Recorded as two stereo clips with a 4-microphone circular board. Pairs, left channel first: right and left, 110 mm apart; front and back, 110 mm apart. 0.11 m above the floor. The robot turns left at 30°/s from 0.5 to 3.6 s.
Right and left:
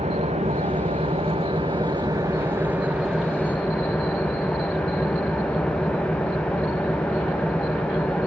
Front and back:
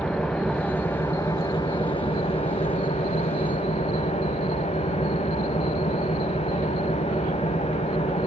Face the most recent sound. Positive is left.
turn(degrees=-10)